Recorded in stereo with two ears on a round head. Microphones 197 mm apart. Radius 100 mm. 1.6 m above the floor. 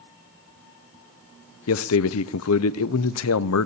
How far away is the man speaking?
About 0.6 m.